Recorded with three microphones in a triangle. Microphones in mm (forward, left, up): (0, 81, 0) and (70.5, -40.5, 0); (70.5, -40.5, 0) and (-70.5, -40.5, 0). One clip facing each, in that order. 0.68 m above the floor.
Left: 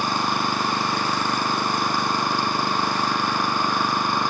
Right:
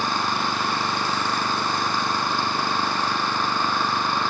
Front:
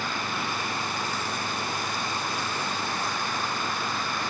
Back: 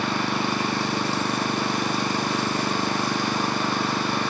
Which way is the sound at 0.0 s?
165° right.